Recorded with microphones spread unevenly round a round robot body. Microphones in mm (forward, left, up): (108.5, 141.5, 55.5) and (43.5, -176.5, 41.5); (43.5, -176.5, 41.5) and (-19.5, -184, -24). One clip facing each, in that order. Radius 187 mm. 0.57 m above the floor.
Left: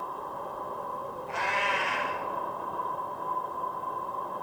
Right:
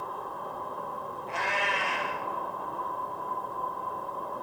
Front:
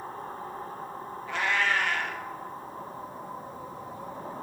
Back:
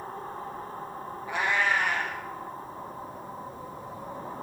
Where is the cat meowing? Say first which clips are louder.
Right 1 dB, back 1 dB; 85° right, 2.0 m.